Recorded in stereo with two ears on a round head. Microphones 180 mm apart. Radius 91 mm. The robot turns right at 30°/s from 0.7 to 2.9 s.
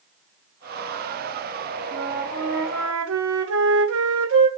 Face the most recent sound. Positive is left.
turn(degrees=-70)  # may be behind; listen again after turning